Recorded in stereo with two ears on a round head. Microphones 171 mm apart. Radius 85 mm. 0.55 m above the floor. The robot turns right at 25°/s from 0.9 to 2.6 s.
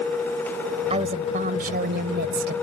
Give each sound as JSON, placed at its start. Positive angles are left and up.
{"t": 0.9, "sound": "a woman speaking", "azimuth_deg": -145}